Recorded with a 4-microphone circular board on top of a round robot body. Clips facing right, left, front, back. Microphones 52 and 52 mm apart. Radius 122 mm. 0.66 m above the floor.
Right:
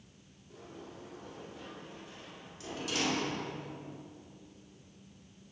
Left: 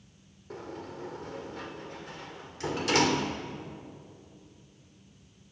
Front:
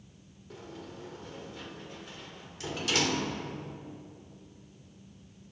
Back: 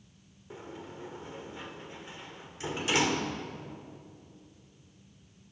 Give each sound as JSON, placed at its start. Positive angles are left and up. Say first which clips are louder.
{"t": 0.5, "sound": "a sliding door", "louder": "left 8 dB, back 1 dB", "azimuth_deg": 115, "distance_m": 2.0}